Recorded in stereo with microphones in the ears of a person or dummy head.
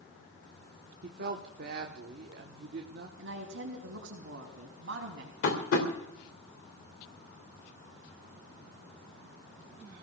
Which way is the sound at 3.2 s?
75° right (ahead or behind).